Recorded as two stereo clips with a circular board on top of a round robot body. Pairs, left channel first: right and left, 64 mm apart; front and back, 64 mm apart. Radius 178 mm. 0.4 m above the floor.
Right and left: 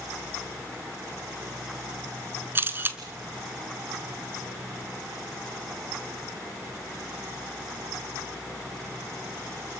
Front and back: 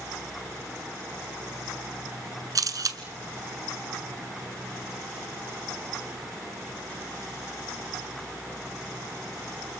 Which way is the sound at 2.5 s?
150° left.